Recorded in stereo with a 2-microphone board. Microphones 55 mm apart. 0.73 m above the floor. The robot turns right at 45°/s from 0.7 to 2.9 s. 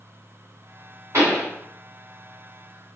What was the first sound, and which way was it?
A pop, 65° right (ahead or behind).